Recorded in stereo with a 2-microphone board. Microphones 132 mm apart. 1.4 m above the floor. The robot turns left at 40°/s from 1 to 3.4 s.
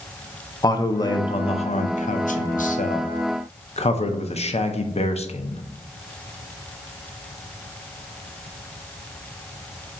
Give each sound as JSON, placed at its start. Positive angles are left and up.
{"t": 0.6, "sound": "a man speaking", "azimuth_deg": 150, "distance_m": 0.5}